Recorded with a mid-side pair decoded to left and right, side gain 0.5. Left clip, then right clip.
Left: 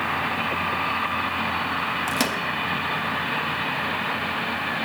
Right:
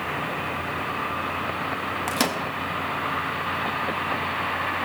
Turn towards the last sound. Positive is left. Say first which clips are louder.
# left 1 dB
turn(degrees=-10)